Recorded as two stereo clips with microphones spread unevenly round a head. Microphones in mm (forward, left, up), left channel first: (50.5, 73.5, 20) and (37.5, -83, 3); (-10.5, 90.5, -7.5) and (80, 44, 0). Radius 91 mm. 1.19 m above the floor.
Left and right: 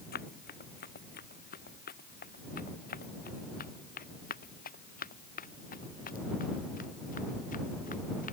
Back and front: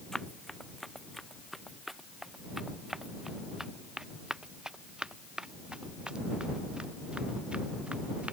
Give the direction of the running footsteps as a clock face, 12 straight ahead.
10 o'clock.